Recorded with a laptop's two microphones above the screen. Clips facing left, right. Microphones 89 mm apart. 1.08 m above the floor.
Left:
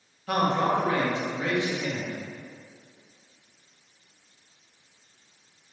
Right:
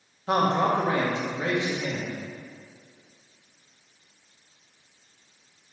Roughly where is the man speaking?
Right.